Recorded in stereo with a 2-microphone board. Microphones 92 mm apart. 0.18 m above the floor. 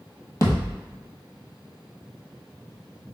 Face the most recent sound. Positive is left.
turn(degrees=35)  # may be behind; listen again after turning